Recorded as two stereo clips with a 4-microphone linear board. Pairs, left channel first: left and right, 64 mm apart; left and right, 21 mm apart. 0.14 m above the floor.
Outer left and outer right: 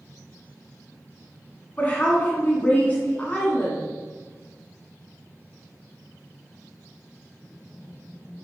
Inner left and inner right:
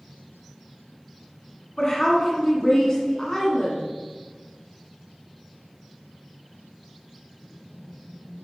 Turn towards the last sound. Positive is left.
turn(degrees=25)  # may be behind; listen again after turning